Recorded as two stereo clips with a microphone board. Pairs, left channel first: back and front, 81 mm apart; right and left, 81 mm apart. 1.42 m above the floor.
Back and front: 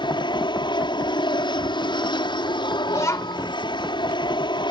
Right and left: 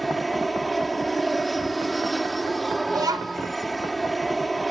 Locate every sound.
0.0 s an aircraft: straight behind
2.9 s a child speaking: 125° left